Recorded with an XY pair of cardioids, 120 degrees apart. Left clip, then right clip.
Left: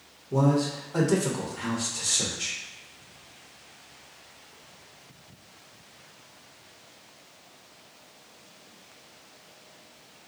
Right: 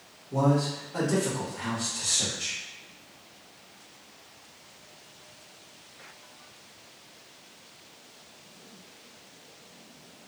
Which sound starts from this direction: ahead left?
A man speaking, at 0.3 s.